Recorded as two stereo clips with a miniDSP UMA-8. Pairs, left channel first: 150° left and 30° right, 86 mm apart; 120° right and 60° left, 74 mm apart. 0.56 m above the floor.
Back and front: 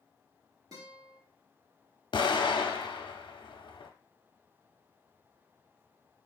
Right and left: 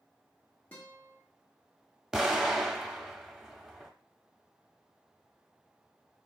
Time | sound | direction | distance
0.7 | a guitar | 55° right | 1.6 m
2.1 | an explosion | 145° left | 0.6 m